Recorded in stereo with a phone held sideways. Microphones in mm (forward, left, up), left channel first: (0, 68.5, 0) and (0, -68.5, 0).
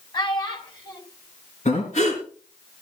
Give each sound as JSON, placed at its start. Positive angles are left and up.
{"t": 0.1, "sound": "a child speaking", "side_deg": 35, "distance_m": 3.0}
{"t": 1.6, "sound": "breathing", "side_deg": 60, "distance_m": 4.0}